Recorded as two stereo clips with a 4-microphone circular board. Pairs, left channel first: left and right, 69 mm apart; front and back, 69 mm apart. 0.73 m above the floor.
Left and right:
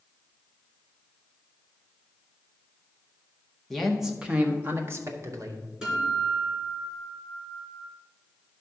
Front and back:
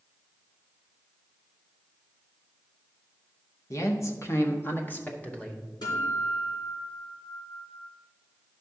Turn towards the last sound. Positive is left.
turn(degrees=-10)